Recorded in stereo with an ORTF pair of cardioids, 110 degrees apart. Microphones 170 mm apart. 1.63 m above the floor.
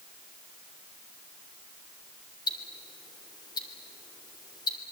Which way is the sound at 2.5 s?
25° left.